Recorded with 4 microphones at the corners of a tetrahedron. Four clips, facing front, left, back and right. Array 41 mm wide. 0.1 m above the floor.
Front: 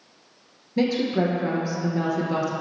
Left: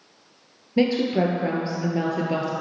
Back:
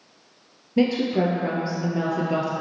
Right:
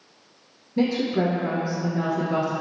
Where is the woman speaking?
110° left, 1.6 m.